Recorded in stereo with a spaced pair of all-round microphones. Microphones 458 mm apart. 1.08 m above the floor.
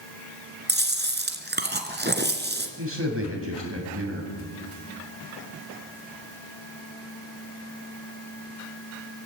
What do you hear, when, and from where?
0.7 s chewing: 20° right (ahead or behind), 2.5 m
2.8 s a man speaking: 30° right (ahead or behind), 6.5 m